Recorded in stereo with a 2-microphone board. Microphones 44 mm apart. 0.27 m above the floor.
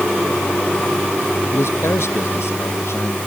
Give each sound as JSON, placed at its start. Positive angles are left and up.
{"t": 1.5, "sound": "a man speaking", "side_deg": 75}